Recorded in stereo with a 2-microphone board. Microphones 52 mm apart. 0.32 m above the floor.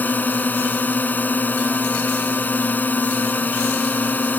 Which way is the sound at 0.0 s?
35° left (ahead or behind).